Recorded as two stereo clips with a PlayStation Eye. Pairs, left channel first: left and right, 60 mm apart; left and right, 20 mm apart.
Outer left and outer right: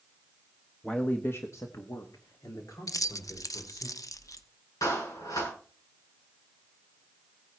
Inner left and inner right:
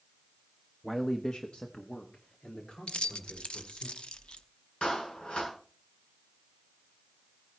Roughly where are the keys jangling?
Left.